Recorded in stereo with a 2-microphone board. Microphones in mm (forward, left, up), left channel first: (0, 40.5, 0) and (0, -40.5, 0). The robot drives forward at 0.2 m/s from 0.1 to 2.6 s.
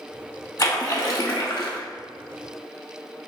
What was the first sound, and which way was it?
A splash, 45° left (ahead or behind).